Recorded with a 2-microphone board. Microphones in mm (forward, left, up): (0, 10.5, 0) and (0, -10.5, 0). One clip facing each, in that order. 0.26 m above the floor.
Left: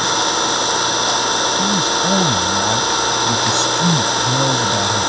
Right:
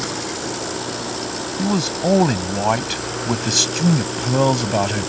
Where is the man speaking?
35° right (ahead or behind).